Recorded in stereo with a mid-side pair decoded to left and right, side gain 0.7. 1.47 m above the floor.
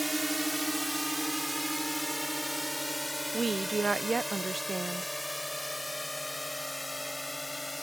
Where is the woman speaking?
20° right.